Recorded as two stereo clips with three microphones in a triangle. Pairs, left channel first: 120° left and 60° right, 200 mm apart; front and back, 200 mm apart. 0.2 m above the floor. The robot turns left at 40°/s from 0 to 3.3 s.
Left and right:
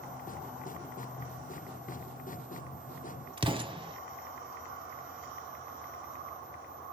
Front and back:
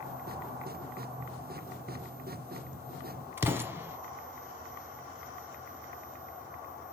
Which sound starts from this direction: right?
An explosion, at 3.4 s.